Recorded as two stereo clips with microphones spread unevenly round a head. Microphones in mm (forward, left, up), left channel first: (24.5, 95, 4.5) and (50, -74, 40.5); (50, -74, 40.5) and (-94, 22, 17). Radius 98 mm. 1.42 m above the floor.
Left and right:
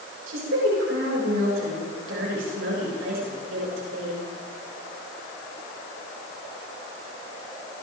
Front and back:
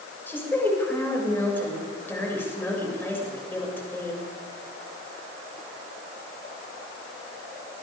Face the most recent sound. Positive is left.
turn(degrees=-110)